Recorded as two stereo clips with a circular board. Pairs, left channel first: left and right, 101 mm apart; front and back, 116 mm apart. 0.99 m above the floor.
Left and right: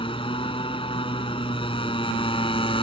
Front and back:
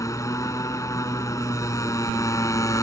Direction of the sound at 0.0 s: 60° left.